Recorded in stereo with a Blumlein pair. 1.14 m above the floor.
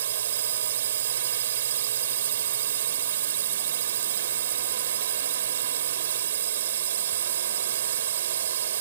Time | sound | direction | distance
0.0 | a drone | 60° right | ?